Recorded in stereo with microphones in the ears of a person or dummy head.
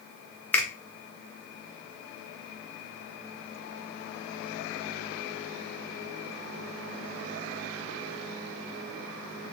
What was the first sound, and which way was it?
A finger snap, 5° left (ahead or behind).